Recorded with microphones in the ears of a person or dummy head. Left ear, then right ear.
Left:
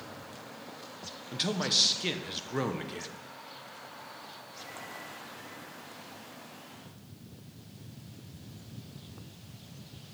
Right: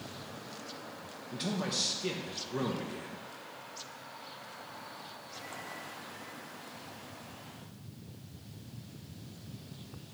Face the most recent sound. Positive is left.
turn(degrees=35)  # may be behind; listen again after turning